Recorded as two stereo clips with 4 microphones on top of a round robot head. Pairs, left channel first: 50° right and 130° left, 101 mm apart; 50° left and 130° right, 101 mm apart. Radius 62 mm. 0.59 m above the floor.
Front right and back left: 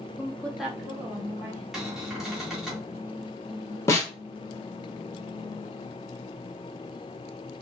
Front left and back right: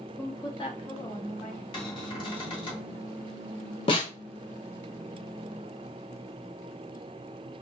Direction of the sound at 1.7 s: 45° left.